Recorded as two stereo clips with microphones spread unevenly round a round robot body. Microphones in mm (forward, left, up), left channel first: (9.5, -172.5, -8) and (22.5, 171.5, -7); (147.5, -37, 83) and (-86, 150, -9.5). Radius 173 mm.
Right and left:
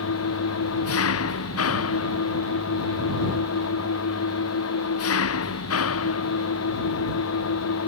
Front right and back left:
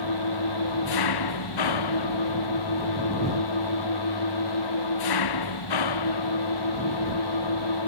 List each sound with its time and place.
0.0 s an engine running: 40° right